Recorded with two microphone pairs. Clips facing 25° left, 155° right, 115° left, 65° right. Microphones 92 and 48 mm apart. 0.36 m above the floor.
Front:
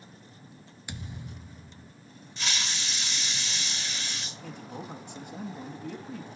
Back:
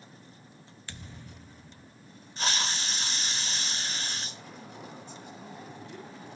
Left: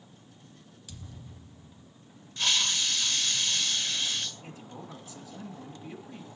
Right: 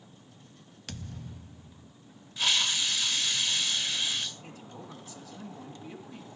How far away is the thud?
About 0.6 m.